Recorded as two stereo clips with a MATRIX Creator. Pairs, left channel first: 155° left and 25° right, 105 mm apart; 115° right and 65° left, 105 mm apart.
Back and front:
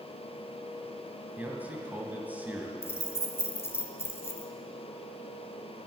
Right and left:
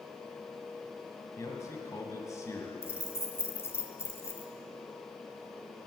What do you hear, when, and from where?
1.4 s a man speaking: 85° right, 1.7 m
2.8 s keys jangling: 155° right, 1.2 m